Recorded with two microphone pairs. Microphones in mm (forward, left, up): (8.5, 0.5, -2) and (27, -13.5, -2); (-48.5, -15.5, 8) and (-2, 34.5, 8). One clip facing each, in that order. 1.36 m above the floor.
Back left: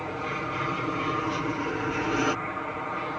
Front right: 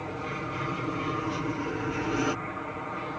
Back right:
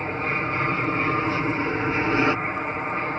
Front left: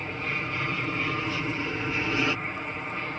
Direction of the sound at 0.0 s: 155° right.